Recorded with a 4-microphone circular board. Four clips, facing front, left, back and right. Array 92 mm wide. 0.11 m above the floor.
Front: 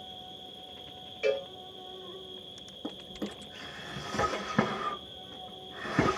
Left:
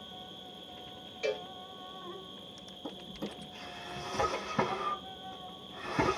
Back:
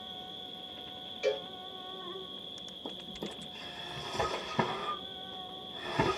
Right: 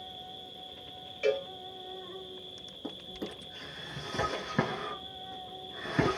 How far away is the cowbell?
About 1.8 m.